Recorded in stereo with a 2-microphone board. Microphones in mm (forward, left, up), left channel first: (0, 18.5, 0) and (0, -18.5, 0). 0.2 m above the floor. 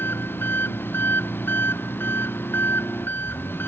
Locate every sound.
0.0 s an engine running: 80° left